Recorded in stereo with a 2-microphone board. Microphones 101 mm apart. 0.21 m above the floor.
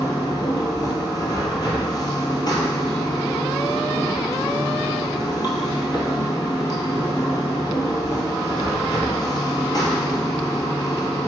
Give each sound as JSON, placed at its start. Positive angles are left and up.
{"t": 0.0, "sound": "running water", "side_deg": 40, "distance_m": 0.9}